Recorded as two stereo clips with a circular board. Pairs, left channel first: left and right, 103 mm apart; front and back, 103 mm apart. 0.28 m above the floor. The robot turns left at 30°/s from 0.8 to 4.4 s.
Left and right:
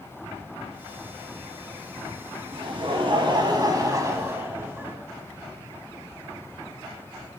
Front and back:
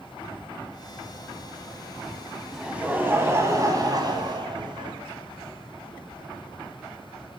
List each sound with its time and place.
2.5 s laughter: 95° right, 1.8 m; by 4.9 s 155° right, 1.8 m